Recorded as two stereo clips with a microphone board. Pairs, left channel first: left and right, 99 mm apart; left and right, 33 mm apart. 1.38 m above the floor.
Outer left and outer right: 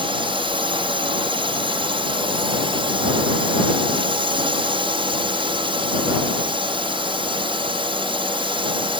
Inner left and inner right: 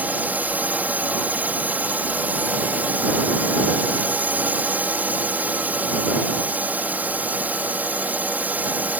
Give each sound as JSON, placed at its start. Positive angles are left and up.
{"t": 0.0, "sound": "a drone", "side_deg": -60}